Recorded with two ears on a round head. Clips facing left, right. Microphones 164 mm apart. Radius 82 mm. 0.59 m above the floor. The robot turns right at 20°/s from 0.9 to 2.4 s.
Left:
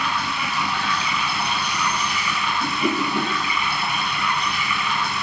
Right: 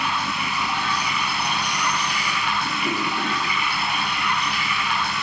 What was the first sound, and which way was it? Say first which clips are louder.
Running water: even; 60° left.